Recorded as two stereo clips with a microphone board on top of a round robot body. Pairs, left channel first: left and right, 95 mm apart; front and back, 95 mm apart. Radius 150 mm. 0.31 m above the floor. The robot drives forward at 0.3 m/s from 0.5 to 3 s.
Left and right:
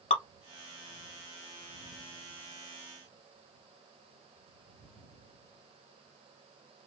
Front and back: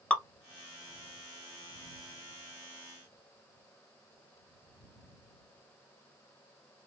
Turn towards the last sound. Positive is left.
turn(degrees=135)